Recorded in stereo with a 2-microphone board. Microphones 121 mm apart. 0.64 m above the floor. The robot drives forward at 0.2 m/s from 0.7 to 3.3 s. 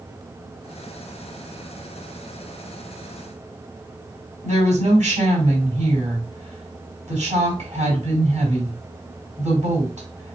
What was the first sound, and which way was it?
A woman speaking, 65° right (ahead or behind).